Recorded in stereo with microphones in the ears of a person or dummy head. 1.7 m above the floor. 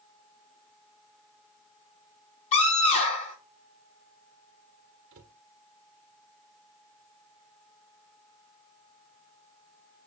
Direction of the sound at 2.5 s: 35° left (ahead or behind).